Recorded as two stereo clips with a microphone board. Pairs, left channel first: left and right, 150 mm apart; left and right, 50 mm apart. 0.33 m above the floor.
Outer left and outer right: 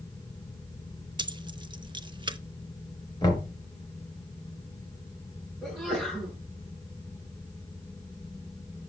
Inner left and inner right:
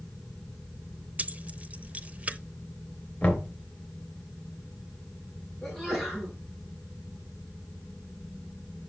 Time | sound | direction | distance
1.2 | keys jangling | 30° right (ahead or behind) | 0.6 m
3.2 | knocking | 25° left (ahead or behind) | 3 m
5.6 | a sneeze | 5° right (ahead or behind) | 4.5 m